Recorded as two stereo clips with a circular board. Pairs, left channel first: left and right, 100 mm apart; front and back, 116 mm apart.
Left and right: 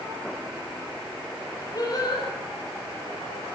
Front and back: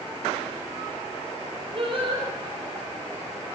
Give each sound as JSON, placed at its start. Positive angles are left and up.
{"t": 1.8, "sound": "singing", "azimuth_deg": 140, "distance_m": 7.5}